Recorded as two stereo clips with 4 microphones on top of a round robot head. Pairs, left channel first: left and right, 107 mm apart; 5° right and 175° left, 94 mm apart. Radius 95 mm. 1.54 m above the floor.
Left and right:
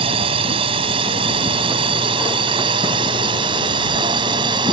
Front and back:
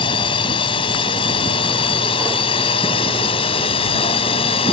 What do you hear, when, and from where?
0.0 s a drone: 45° right; by 4.7 s 35° right